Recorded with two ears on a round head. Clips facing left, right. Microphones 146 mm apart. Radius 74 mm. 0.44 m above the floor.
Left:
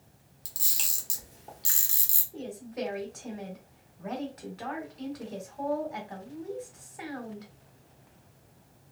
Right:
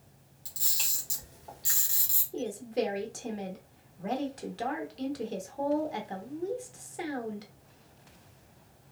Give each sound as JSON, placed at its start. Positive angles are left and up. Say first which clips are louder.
{"t": 0.5, "sound": "a camera shutter", "louder": "even", "side_deg": 25, "distance_m": 1.0}
{"t": 2.3, "sound": "a woman speaking", "louder": "right 5 dB", "side_deg": -35, "distance_m": 0.9}